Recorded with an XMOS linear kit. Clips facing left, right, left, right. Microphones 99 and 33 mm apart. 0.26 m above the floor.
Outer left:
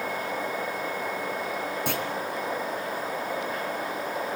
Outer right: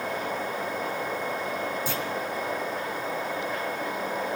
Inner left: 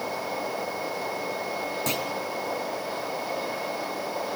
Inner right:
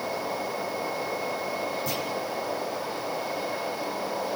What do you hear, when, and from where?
1.9 s a clunk: 65° left (ahead or behind), 3.5 m